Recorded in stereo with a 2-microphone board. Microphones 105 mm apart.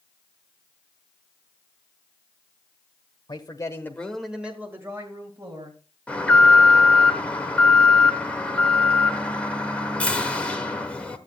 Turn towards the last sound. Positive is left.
turn(degrees=10)  # may be behind; listen again after turning